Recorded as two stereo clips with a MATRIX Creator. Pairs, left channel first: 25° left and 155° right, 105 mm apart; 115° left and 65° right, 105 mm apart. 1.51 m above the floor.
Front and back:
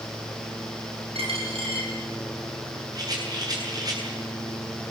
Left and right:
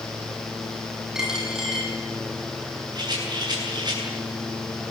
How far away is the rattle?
About 9.5 m.